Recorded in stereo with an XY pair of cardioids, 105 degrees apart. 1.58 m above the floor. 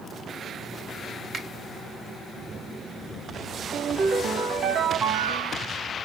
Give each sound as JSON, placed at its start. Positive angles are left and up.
{"t": 1.3, "sound": "a finger snap", "azimuth_deg": -40, "distance_m": 2.0}
{"t": 3.7, "sound": "a ringtone", "azimuth_deg": -60, "distance_m": 1.6}